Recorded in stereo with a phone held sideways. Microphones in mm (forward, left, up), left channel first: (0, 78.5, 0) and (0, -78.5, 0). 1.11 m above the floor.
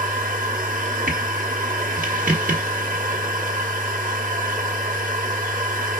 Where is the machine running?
55° right (ahead or behind), 1.1 m.